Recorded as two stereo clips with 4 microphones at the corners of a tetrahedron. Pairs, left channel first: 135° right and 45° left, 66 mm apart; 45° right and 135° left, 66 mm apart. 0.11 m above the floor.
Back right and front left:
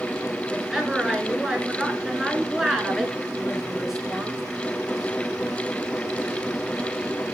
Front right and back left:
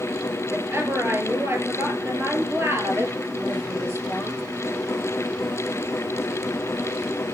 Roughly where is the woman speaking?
Behind left.